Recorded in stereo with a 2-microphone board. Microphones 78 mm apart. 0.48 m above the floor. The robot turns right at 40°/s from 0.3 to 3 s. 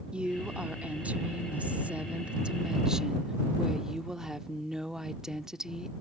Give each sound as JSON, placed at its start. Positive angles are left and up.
{"t": 0.1, "sound": "a woman speaking", "side_deg": -15}